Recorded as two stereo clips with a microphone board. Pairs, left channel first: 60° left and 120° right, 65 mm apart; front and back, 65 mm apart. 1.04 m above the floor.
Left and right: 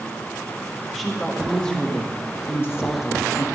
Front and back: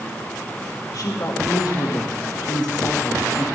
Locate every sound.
0.9 s a woman speaking: 30° right, 1.5 m; by 3.5 s 40° left, 0.9 m